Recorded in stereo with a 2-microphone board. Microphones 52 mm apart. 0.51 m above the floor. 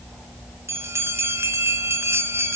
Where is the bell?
55° right (ahead or behind), 1.7 m.